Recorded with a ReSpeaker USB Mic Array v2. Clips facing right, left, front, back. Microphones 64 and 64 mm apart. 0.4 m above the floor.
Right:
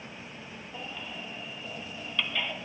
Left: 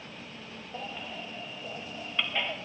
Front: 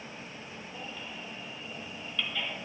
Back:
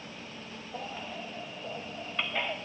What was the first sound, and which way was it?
A baby crying, 145° left.